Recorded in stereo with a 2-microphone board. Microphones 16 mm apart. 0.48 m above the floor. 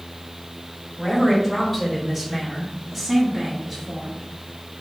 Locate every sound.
1.0 s a man speaking: 5° left (ahead or behind), 2 m; by 4.2 s 15° right (ahead or behind), 1.3 m